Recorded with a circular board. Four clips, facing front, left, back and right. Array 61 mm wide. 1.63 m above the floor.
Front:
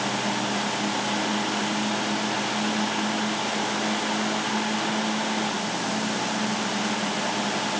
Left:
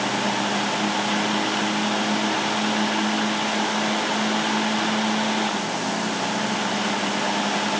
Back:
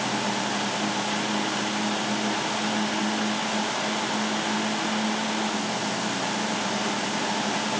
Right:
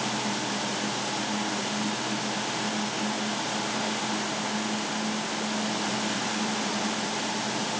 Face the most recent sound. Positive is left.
No sound to turn to.